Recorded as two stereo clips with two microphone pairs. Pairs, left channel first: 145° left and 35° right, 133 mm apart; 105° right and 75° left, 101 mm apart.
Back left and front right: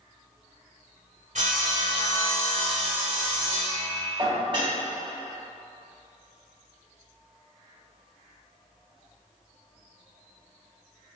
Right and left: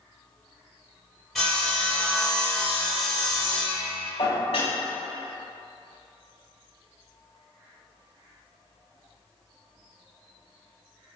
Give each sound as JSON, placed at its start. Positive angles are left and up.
{"t": 1.4, "sound": "sawing", "azimuth_deg": -10, "distance_m": 1.3}
{"t": 4.2, "sound": "dishes clattering", "azimuth_deg": -90, "distance_m": 1.3}